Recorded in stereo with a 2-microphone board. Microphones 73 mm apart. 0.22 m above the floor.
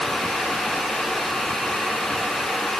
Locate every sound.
Only background noise.